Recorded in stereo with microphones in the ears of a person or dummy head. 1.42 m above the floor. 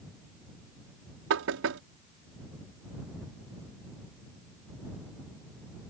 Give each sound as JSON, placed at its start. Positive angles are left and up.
{"t": 1.3, "sound": "knocking", "side_deg": -75}